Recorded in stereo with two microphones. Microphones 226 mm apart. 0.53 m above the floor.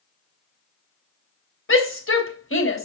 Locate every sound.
1.7 s a shout: 65° left (ahead or behind), 3 m